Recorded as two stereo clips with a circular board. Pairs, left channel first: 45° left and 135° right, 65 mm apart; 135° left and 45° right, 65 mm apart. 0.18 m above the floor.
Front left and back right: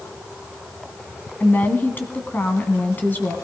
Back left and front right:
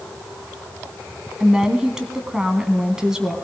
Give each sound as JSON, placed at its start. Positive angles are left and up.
{"t": 1.4, "sound": "a woman speaking", "azimuth_deg": 25, "distance_m": 1.4}